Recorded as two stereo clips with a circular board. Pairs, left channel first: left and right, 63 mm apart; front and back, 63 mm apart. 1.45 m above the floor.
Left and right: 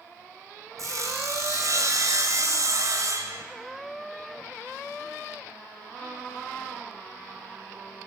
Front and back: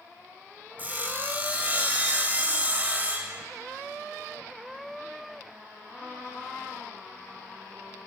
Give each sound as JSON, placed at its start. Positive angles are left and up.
{"t": 0.8, "sound": "sawing", "azimuth_deg": -120, "distance_m": 3.0}